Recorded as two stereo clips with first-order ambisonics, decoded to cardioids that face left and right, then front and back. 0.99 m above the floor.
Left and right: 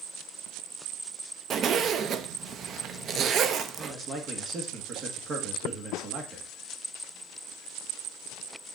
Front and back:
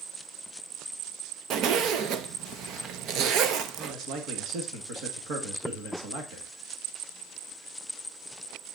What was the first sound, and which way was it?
A zipper, 145° right.